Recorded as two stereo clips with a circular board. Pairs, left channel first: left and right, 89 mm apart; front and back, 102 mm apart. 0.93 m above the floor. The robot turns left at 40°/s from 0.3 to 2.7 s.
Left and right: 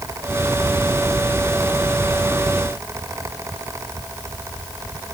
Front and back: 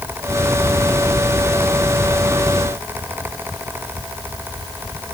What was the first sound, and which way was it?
Only background noise.